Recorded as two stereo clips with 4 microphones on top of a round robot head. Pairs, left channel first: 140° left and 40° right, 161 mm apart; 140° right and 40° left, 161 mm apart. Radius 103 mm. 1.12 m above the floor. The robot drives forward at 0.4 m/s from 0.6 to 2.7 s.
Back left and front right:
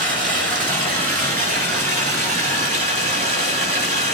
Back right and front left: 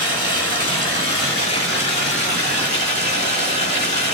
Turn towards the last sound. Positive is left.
turn(degrees=-90)